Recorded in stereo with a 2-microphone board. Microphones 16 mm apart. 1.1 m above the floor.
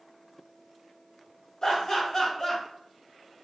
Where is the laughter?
40° left (ahead or behind), 1.2 m.